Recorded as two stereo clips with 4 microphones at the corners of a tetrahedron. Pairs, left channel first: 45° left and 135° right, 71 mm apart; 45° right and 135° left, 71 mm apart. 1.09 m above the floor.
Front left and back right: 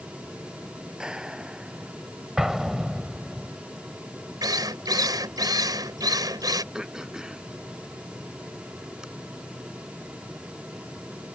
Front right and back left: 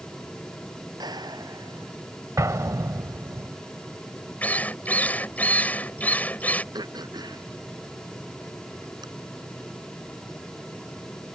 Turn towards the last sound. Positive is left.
turn(degrees=145)